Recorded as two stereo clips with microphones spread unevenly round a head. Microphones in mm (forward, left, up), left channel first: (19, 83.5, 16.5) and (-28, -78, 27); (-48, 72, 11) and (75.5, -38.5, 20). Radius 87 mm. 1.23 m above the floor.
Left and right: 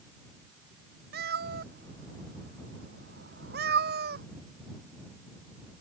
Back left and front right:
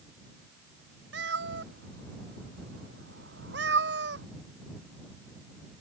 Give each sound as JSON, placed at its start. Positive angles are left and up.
{"t": 1.1, "sound": "a cat meowing", "azimuth_deg": -70}